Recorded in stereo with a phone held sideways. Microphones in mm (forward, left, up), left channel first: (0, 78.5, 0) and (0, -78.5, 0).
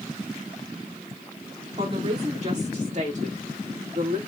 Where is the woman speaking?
40° right (ahead or behind), 2.5 m; by 4.2 s 60° right (ahead or behind), 1.7 m.